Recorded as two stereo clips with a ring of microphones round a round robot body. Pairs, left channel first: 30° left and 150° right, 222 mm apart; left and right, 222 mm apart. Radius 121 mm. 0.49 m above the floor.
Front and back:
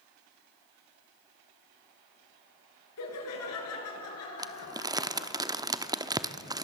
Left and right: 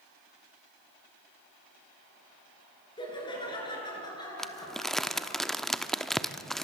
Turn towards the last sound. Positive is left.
turn(degrees=175)